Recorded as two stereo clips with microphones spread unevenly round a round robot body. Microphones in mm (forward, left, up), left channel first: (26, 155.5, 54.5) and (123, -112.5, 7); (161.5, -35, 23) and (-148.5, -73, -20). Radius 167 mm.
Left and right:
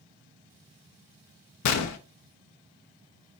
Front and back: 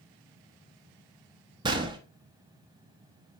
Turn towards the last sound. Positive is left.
turn(degrees=120)